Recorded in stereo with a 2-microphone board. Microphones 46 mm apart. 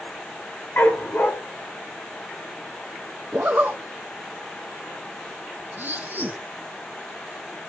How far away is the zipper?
About 1.3 m.